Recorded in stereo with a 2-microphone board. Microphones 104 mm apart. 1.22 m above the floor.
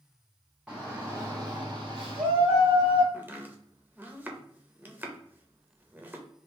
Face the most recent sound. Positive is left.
turn(degrees=-20)  # may be behind; listen again after turning